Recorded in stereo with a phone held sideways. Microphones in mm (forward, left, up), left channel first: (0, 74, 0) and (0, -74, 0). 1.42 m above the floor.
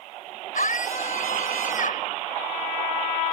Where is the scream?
60° left (ahead or behind).